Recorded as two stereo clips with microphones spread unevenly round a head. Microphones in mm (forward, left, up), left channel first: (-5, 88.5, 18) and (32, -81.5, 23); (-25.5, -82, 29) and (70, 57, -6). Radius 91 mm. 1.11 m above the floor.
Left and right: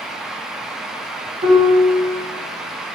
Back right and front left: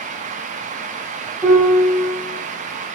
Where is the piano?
25° right, 0.9 m.